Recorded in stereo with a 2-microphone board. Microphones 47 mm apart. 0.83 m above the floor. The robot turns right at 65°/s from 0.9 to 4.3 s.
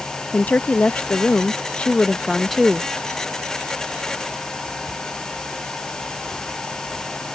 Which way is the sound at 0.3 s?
75° left.